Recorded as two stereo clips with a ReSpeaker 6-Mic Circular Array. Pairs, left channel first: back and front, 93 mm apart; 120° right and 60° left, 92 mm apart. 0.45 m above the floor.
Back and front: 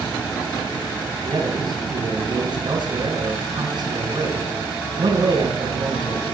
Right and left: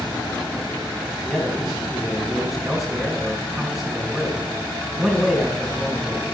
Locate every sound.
1.2 s a man speaking: 25° right, 4 m